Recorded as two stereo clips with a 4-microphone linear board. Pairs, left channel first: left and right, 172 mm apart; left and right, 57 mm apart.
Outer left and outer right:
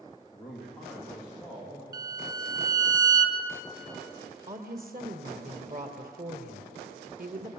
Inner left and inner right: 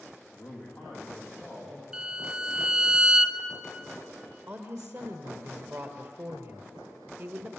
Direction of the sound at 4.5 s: 55° right (ahead or behind).